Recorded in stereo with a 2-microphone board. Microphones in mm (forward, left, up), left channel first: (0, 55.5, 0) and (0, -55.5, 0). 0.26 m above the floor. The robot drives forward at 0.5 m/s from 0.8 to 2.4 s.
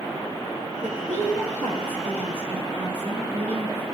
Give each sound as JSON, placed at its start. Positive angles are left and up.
{"t": 0.8, "sound": "a woman speaking", "side_deg": -70, "distance_m": 6.0}